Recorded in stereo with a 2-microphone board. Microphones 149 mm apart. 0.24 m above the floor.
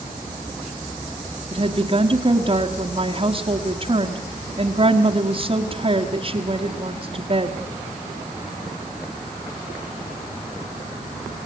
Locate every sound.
1.5 s a woman speaking: 40° right (ahead or behind), 1.6 m